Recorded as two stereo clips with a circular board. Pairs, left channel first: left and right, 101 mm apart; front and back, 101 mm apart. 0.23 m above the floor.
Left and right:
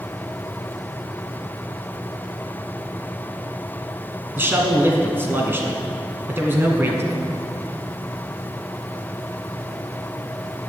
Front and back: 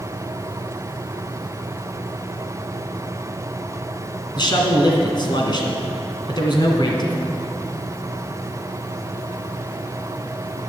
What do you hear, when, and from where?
4.3 s a man speaking: 25° right, 2 m